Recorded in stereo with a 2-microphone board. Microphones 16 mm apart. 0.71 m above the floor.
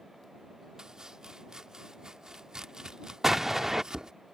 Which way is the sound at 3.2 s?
20° right (ahead or behind).